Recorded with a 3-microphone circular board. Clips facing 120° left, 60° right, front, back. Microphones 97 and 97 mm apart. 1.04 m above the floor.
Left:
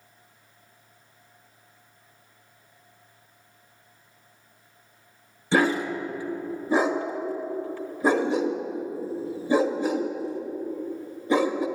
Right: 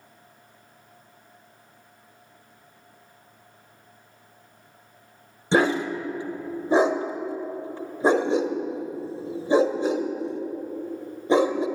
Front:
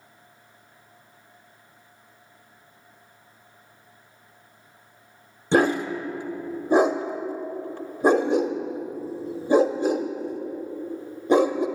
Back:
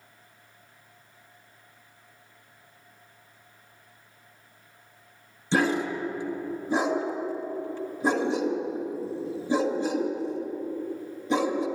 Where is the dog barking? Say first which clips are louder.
Right 1 dB, front 4 dB; straight ahead, 1.1 m.